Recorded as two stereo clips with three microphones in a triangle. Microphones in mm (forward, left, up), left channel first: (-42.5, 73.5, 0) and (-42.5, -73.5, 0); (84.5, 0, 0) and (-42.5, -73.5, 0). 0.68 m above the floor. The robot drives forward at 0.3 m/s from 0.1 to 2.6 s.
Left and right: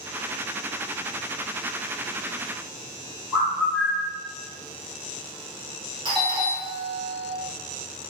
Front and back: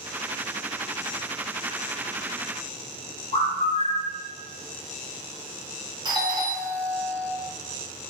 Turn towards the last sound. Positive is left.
turn(degrees=-120)